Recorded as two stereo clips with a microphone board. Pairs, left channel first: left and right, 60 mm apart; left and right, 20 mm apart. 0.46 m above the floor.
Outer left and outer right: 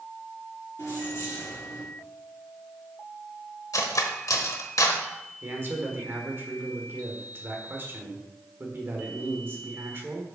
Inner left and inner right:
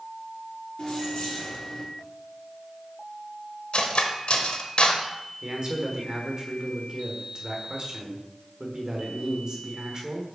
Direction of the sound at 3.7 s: 65° left (ahead or behind).